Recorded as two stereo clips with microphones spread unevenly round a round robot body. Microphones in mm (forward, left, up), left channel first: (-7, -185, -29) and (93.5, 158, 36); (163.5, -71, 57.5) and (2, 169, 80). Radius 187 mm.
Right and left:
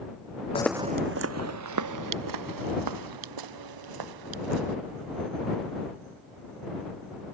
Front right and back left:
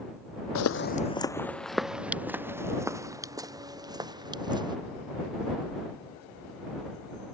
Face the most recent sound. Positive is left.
turn(degrees=50)